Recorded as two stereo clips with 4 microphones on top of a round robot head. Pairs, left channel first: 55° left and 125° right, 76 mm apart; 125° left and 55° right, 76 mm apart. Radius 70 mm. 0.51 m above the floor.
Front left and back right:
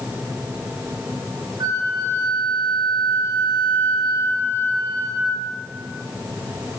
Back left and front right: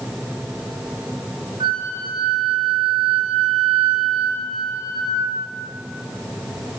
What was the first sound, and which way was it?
A flute, 80° right.